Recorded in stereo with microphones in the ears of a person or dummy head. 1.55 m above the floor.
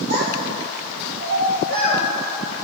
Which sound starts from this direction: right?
A child speaking, at 0.1 s.